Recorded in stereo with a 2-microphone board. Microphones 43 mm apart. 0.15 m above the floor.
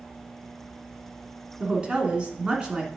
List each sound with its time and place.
1.6 s a woman speaking: 25° right (ahead or behind), 1.7 m